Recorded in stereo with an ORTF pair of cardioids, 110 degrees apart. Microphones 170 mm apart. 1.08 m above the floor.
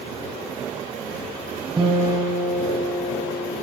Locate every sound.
1.8 s a guitar: 20° right, 5.5 m